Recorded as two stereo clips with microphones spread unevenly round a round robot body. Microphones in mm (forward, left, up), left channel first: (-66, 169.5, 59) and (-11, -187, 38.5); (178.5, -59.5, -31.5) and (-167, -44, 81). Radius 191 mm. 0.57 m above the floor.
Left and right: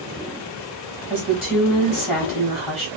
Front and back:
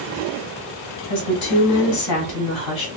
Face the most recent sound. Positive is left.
turn(degrees=30)